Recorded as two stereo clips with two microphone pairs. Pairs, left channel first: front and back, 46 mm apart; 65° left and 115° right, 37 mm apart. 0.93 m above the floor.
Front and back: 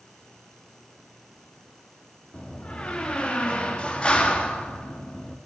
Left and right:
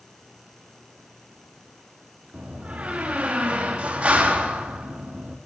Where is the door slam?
65° right, 1.4 m.